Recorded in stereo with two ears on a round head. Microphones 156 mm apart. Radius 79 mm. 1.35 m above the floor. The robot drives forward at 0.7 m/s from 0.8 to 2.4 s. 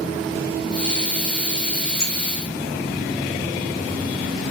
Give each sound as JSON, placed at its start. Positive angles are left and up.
{"t": 2.0, "sound": "a clink", "side_deg": 80, "distance_m": 4.5}